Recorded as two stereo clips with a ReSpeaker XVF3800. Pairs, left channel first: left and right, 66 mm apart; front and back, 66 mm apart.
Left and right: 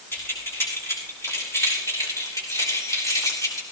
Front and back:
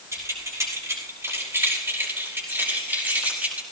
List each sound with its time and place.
0.1 s keys jangling: 145° left, 5 m; by 3.6 s 115° left, 4 m